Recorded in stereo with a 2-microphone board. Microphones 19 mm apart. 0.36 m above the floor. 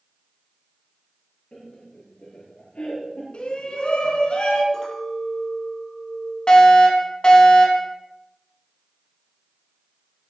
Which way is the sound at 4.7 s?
20° left (ahead or behind).